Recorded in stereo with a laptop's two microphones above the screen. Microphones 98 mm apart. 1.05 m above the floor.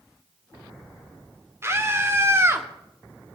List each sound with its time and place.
1.6 s a scream: 30° right (ahead or behind), 2.5 m